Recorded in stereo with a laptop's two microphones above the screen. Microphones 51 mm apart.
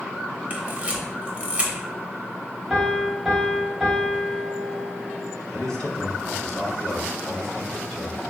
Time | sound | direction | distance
0.5 | a camera shutter | 20° right (ahead or behind) | 0.7 m
2.7 | a piano | 5° right (ahead or behind) | 0.7 m
5.5 | a man speaking | 20° left (ahead or behind) | 1.4 m